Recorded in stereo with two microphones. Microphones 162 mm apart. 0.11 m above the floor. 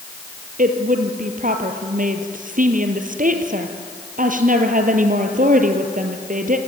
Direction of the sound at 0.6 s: 60° right (ahead or behind).